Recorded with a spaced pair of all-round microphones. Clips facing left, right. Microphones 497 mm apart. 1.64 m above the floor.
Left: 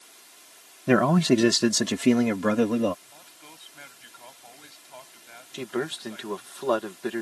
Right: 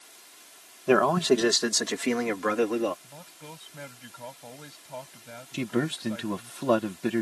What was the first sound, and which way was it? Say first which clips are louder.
A man speaking: left 2 dB; 40° left (ahead or behind).